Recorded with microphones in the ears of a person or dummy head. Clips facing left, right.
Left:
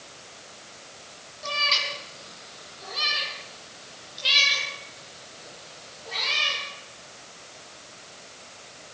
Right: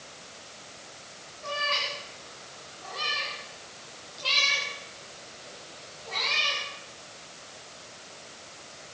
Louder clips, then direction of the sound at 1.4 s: Even; 50° left (ahead or behind).